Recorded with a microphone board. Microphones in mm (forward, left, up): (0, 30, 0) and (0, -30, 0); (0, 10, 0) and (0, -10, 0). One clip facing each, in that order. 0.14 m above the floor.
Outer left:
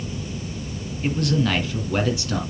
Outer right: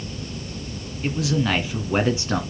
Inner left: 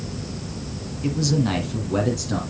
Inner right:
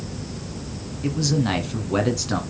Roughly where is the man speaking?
Centre.